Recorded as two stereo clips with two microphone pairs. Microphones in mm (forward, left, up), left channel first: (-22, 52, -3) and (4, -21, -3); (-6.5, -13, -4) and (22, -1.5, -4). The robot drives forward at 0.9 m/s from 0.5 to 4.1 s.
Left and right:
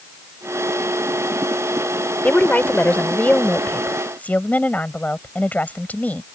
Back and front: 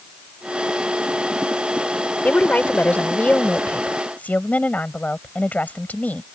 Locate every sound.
2.2 s a woman speaking: 175° left